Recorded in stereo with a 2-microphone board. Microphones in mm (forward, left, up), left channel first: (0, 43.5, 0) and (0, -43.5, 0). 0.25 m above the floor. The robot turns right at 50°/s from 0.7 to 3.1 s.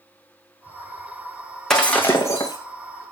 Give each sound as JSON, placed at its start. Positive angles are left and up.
{"t": 1.7, "sound": "breaking glass", "azimuth_deg": 5, "distance_m": 2.5}